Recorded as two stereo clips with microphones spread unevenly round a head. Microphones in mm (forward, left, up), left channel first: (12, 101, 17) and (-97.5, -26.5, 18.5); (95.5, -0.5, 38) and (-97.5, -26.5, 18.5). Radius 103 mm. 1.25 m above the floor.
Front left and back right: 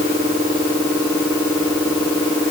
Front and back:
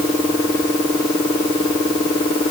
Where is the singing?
No singing in this recording.